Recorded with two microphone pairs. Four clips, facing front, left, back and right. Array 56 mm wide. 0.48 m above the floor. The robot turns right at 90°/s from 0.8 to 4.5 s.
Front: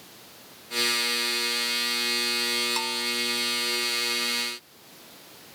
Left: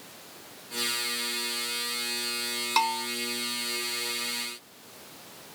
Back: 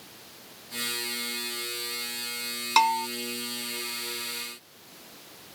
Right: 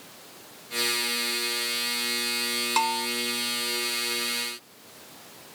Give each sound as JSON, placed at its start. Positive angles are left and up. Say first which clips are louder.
{"t": 2.8, "sound": "a bell", "louder": "even, back 9 dB", "azimuth_deg": 180}